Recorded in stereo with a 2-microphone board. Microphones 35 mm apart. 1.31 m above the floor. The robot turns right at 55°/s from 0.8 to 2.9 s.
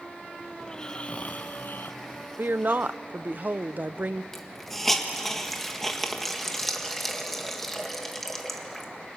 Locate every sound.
0.6 s snoring: 25° left, 0.6 m; by 2.3 s 110° left, 0.6 m
2.4 s a woman speaking: 65° right (ahead or behind), 0.6 m; by 4.2 s 50° right (ahead or behind), 0.6 m
4.3 s a hiss: 10° left (ahead or behind), 1.8 m